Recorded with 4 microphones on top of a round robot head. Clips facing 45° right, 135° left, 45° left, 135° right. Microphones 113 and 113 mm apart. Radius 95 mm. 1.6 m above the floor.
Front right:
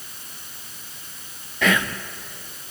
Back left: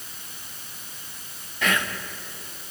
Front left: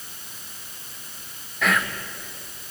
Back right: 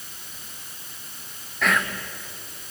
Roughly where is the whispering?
Ahead right.